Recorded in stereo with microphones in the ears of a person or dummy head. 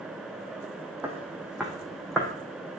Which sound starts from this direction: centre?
Footsteps, at 1.0 s.